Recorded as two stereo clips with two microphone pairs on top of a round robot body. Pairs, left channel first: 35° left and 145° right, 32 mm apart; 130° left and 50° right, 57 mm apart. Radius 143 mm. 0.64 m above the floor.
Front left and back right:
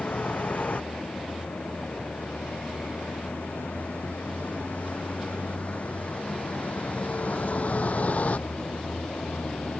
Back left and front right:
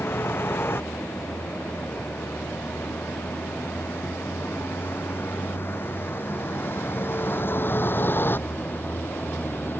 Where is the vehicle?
85° left; by 9.8 s 75° left.